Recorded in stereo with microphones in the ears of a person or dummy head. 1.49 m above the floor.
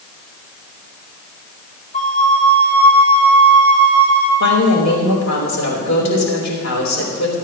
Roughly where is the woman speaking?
Left.